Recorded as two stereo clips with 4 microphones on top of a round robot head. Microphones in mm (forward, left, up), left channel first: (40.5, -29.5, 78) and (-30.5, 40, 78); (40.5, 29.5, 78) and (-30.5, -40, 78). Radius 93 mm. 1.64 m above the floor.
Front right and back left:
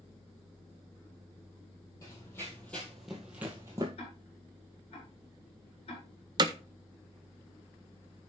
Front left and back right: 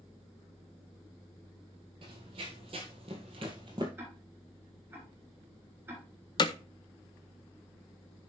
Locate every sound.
2.0 s running footsteps: 105° right, 2 m; by 3.9 s 175° right, 1.8 m
4.0 s ticking: 65° right, 7.5 m
6.4 s hammering: 90° left, 0.6 m